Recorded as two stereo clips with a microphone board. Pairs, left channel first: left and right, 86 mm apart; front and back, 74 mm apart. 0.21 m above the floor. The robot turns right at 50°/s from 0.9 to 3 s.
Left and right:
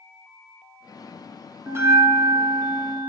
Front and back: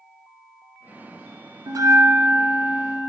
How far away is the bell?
About 0.8 m.